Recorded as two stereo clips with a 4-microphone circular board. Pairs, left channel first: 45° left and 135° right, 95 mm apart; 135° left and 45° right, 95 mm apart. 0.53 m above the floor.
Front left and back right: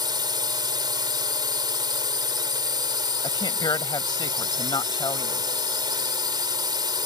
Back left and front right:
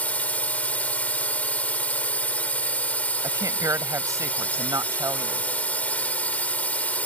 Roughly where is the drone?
Behind right.